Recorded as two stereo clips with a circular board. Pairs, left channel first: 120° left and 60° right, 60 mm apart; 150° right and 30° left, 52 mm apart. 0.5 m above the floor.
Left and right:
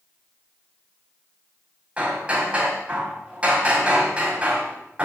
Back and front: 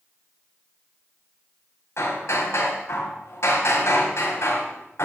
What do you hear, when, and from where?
2.0 s hammering: 130° right, 2.5 m